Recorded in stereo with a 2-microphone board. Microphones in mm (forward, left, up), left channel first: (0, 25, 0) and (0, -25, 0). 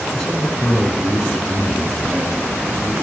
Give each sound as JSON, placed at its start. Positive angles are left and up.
{"t": 0.1, "sound": "a man speaking", "side_deg": 10, "distance_m": 4.0}